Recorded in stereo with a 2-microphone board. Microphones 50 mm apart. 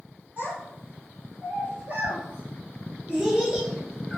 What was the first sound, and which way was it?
A child speaking, 40° right (ahead or behind).